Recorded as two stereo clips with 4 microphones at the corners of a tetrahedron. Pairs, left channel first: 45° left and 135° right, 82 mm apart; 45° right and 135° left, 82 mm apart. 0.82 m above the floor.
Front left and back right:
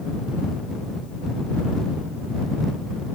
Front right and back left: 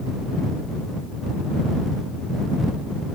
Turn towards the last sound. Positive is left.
No sound to turn to.